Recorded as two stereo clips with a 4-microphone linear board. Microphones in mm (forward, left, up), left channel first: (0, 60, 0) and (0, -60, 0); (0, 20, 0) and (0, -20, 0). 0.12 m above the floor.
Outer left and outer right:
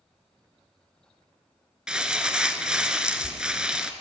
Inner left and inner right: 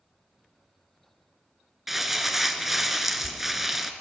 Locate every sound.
1.9 s crumpling: 5° right (ahead or behind), 0.5 m